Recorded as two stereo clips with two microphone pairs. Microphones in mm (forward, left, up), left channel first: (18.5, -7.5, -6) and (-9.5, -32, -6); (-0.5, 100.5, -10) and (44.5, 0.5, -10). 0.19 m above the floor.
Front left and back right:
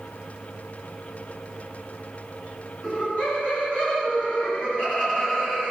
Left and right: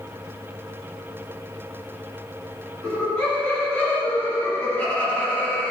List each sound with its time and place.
2.8 s laughter: 40° left, 1.5 m